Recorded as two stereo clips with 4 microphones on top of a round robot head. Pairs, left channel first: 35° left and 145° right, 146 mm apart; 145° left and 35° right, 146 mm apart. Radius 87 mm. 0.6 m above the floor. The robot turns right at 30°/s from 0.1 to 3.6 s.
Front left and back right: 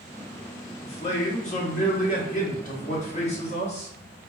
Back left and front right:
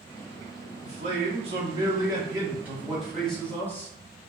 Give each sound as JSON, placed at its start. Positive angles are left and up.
{"t": 0.8, "sound": "a man speaking", "azimuth_deg": -10, "distance_m": 1.0}